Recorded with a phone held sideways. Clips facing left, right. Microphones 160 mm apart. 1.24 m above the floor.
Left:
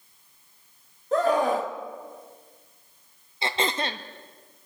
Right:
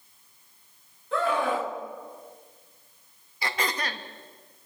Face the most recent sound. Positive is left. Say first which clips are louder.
# left 3 dB
turn(degrees=25)  # may be behind; listen again after turning